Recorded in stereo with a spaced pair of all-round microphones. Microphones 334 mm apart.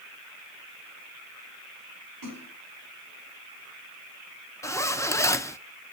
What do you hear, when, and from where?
2.2 s a splash: 80° right, 4 m
4.6 s a zipper: 10° left (ahead or behind), 0.5 m